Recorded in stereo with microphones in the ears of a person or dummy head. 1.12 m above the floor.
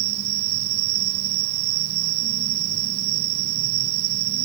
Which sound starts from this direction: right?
An insect, at 0.0 s.